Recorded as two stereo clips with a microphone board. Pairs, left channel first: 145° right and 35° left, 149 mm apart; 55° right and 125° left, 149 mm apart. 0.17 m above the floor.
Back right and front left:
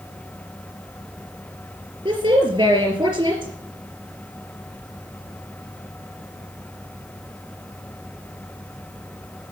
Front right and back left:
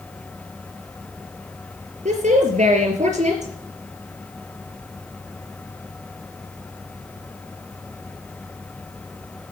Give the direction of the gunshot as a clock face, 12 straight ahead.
No gunshot in this recording.